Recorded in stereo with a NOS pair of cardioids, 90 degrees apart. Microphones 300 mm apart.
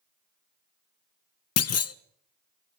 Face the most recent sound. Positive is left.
turn(degrees=55)